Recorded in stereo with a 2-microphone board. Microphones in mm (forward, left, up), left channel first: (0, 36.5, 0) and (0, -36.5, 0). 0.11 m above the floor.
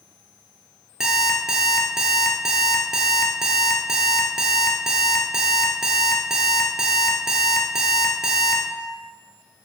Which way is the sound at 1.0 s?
5° right (ahead or behind).